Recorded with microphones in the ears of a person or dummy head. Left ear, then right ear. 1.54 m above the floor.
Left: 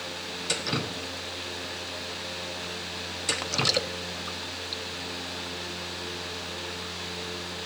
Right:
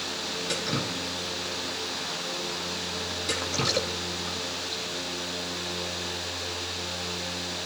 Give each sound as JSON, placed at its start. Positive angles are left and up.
{"t": 0.5, "sound": "dripping", "side_deg": 30, "distance_m": 0.8}